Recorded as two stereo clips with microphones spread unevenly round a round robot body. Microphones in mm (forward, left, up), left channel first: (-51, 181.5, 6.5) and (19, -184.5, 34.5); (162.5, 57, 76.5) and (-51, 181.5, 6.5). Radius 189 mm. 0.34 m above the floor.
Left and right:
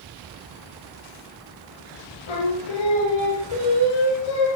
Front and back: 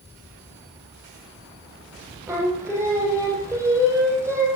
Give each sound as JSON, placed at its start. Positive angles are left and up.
{"t": 2.3, "sound": "singing", "azimuth_deg": 70, "distance_m": 5.5}